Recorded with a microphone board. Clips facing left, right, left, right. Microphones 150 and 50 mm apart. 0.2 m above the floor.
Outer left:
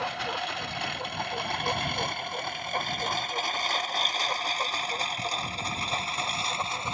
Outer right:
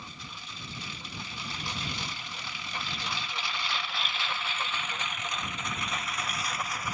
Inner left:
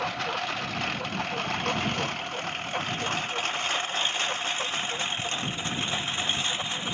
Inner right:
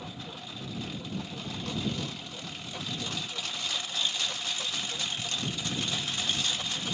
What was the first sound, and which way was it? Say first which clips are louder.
A lawn mower: outer left 15 dB, inner left 13 dB; 75° left (ahead or behind).